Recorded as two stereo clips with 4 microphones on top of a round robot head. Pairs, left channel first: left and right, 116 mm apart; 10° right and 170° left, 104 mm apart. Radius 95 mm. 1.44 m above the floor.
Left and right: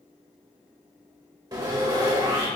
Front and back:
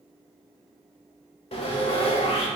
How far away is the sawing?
About 1.0 m.